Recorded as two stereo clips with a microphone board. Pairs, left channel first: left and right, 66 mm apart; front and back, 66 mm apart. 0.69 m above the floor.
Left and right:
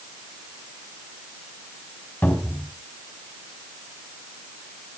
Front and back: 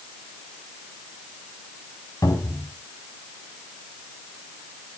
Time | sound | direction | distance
2.2 | a cupboard door | 25° left | 5 m